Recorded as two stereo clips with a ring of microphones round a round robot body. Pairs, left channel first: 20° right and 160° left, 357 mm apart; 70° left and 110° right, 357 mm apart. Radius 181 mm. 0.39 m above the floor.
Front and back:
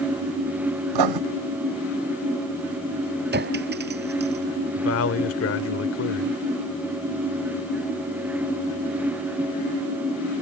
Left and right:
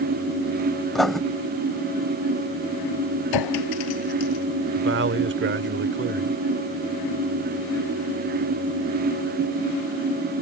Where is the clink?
95° left.